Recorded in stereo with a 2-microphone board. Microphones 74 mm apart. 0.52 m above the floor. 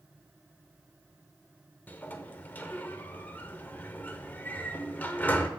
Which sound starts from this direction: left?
A sliding door, at 1.9 s.